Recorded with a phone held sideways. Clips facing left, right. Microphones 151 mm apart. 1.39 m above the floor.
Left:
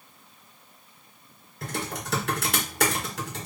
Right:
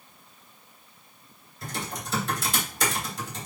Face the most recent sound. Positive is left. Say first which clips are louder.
# left 2 dB
turn(degrees=60)  # may be behind; listen again after turning